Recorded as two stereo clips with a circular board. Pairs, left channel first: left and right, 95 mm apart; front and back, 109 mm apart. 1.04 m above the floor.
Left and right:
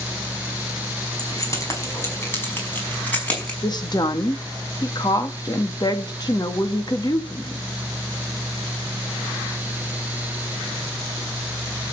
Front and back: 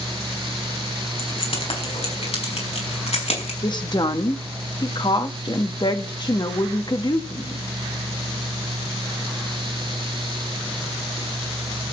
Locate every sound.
1.2 s keys jangling: 35° left, 5 m; by 3.5 s 10° left, 6 m
3.6 s a woman speaking: 45° left, 1.6 m